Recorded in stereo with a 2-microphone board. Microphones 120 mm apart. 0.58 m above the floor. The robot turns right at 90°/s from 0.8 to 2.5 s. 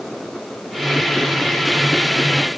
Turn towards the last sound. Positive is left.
No sound to turn to.